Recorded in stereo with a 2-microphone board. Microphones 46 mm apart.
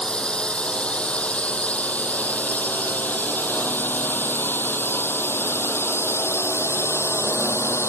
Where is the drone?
20° left (ahead or behind); by 7.9 s 75° left (ahead or behind).